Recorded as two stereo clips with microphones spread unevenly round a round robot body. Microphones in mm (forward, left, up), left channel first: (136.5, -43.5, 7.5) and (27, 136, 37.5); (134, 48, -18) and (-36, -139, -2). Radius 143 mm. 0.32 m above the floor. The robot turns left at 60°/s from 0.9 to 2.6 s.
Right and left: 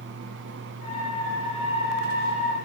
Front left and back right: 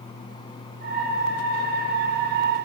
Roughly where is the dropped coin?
I don't hear a dropped coin.